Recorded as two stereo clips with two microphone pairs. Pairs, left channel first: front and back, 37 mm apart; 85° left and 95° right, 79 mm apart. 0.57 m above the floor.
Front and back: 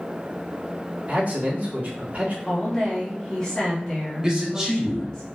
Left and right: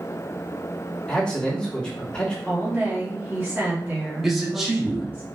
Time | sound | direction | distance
1.1 | a man speaking | 155° left | 1.0 m
2.5 | a woman speaking | 55° right | 1.1 m
4.2 | a man speaking | 175° left | 0.6 m